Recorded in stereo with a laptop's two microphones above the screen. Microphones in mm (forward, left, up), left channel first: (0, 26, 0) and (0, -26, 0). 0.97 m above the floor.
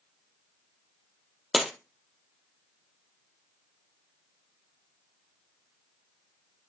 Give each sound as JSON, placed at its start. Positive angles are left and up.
{"t": 1.5, "sound": "breaking glass", "side_deg": -5, "distance_m": 1.6}